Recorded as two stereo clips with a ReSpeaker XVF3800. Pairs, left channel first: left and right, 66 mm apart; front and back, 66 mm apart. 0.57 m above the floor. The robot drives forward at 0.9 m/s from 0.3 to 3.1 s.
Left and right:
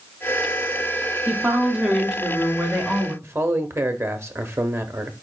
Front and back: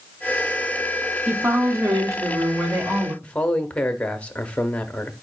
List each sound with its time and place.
1.3 s a woman speaking: 140° right, 0.8 m; by 3.1 s 175° right, 2 m
3.2 s a man speaking: 65° right, 0.7 m